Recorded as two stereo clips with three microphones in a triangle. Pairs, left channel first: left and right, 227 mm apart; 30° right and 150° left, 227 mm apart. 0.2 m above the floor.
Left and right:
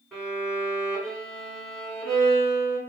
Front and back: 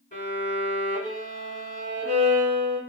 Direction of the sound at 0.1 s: Straight ahead.